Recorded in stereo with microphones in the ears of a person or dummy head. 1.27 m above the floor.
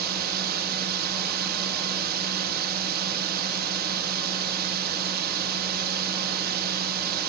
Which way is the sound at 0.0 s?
55° right (ahead or behind).